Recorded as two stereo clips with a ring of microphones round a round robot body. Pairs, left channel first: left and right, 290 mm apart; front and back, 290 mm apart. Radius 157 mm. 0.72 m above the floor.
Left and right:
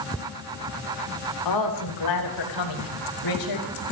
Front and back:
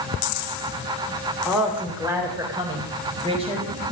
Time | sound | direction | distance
1.4 | a woman speaking | 90° left | 3 m